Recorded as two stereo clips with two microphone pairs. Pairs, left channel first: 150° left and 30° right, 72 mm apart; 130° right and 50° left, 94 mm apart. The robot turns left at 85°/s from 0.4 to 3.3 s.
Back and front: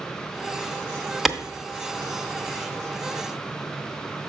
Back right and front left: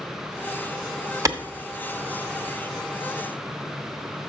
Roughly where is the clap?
Ahead left.